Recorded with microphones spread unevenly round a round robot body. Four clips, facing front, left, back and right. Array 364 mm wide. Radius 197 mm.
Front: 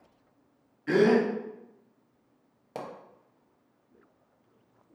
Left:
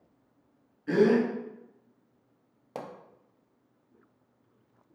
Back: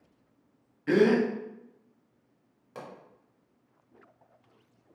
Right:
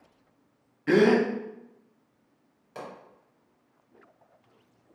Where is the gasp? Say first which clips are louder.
Right 2 dB, even; 80° right, 0.9 m.